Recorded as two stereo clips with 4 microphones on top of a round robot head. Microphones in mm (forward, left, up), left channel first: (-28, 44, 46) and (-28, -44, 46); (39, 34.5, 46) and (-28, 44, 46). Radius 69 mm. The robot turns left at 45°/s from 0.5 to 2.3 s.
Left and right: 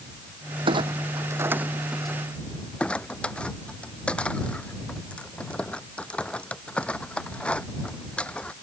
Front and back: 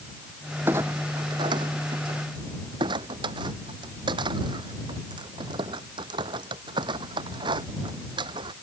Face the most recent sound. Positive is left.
turn(degrees=170)